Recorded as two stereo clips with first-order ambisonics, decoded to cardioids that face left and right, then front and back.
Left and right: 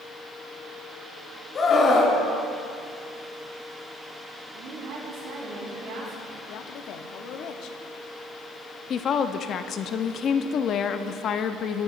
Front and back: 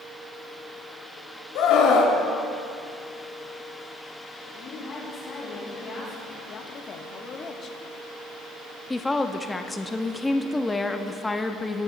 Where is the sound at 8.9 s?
75° left, 0.5 m.